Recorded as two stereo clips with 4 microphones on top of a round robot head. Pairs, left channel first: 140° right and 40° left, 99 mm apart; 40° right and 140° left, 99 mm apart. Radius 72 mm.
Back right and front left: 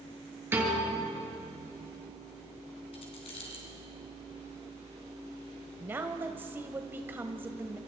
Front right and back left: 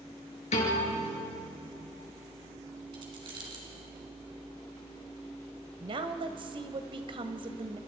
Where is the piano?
30° right, 5.5 m.